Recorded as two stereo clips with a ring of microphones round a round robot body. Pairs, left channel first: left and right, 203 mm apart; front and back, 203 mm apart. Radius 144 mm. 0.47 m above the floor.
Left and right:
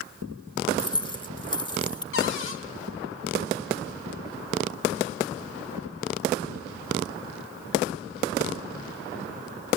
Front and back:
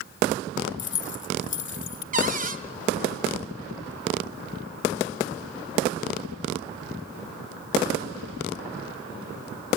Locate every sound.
0.8 s keys jangling: 20° left, 1.3 m
2.1 s a cupboard door: 135° left, 2 m